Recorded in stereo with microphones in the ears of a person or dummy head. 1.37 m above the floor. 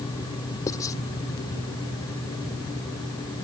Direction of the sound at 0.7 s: 20° left (ahead or behind).